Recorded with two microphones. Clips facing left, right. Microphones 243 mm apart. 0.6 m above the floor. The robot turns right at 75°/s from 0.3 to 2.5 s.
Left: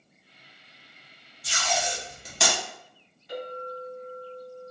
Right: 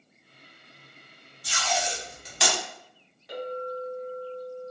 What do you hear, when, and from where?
1.4 s tape being pulled: 20° left (ahead or behind), 1.0 m; by 2.5 s 45° left (ahead or behind), 1.0 m
3.3 s a clink: 80° right, 1.4 m